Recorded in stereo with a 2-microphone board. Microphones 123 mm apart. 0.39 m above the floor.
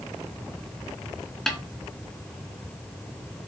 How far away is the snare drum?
About 2 m.